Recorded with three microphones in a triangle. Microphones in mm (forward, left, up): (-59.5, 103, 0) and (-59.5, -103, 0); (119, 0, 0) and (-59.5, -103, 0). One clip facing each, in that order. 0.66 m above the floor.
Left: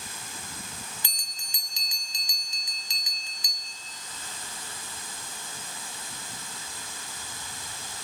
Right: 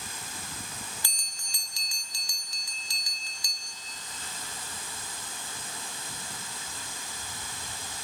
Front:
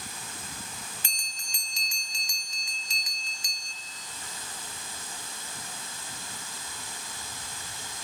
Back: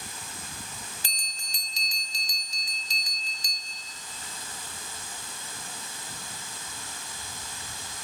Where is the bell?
160° left, 1.1 m.